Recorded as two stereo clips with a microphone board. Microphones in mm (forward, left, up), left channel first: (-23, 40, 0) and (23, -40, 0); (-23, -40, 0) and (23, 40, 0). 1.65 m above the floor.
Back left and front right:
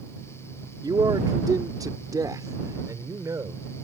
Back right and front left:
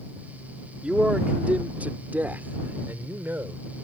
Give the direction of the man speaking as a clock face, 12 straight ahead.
1 o'clock.